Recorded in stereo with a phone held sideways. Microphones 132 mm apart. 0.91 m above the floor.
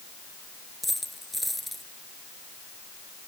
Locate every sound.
0.8 s a dropped coin: centre (ahead or behind)